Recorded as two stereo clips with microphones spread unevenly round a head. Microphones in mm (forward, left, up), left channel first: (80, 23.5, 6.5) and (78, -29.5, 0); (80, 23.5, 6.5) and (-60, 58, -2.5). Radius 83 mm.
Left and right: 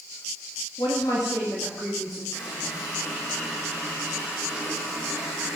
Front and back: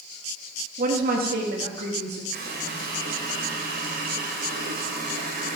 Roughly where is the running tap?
Behind left.